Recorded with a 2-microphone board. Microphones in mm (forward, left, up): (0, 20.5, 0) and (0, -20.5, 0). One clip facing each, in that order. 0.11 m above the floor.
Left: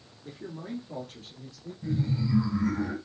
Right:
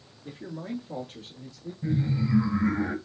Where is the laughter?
30° right (ahead or behind), 1.9 m.